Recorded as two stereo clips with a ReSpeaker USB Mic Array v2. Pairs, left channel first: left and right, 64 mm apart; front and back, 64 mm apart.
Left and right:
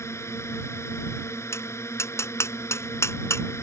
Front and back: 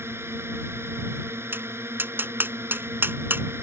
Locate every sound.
0.0 s a drone: 130° left
1.5 s tapping: 130° left